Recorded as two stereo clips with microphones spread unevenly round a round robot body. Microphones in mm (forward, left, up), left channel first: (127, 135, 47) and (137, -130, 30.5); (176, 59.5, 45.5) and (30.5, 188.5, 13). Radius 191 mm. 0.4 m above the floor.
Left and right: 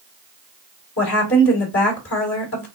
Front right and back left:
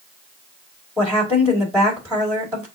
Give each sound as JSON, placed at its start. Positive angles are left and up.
{"t": 1.0, "sound": "a woman speaking", "azimuth_deg": 65, "distance_m": 2.5}